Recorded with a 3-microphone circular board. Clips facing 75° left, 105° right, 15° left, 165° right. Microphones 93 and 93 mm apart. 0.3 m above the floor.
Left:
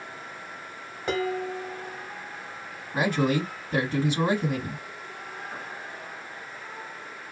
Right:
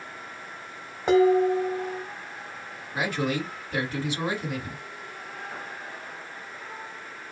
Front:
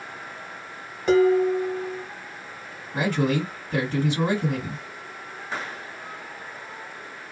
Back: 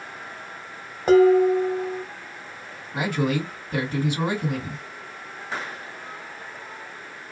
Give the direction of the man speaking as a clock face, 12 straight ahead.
8 o'clock.